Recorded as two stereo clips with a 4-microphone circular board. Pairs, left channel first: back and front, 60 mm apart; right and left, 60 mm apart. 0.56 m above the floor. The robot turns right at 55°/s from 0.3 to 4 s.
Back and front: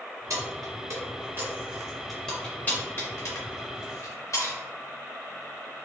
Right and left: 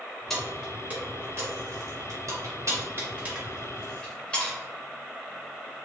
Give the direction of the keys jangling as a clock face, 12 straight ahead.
12 o'clock.